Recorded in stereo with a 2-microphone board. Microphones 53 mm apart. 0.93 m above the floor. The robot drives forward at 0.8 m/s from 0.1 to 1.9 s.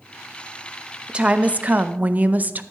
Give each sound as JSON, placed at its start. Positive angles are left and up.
{"t": 1.1, "sound": "a woman speaking", "side_deg": -20, "distance_m": 0.8}